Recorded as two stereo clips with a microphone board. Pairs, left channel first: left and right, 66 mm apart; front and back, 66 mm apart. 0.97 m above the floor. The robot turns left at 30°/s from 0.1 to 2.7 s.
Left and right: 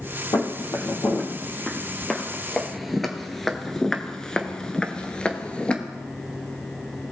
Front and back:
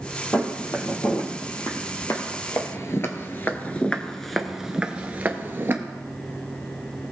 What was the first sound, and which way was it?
Footsteps, 60° left.